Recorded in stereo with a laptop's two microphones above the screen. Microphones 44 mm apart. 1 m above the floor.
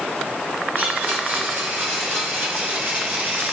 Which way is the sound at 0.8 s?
45° right (ahead or behind).